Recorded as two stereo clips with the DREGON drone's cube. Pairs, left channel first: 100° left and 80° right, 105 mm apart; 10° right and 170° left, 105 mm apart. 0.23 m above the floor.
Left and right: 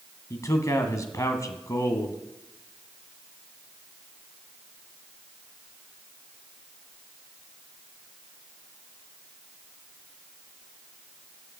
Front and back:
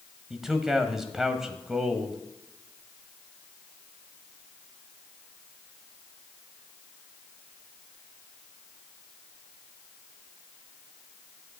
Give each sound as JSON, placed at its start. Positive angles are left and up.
{"t": 0.3, "sound": "a man speaking", "azimuth_deg": 90, "distance_m": 1.4}